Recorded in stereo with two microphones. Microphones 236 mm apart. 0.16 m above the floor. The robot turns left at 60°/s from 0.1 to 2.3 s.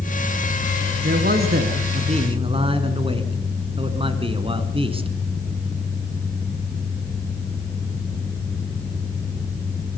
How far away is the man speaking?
About 1.8 m.